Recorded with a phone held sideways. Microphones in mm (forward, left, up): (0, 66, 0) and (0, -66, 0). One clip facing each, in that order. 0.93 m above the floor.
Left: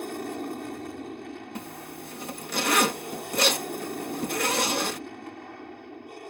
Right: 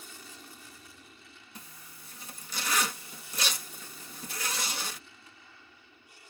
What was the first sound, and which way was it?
An aircraft, 60° left (ahead or behind).